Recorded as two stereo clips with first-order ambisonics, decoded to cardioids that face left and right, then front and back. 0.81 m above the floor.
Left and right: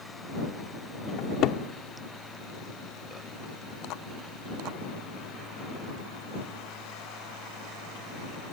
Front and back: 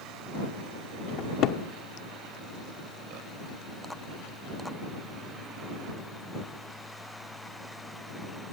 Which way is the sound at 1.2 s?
45° left.